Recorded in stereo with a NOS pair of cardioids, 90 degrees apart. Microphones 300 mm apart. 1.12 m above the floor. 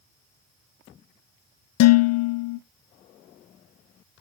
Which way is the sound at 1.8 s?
60° left.